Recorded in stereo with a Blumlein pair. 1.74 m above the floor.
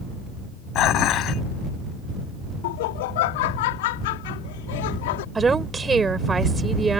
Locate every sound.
0.8 s dishes clattering: 35° left
2.6 s laughter: 50° left
5.3 s a woman speaking: 15° right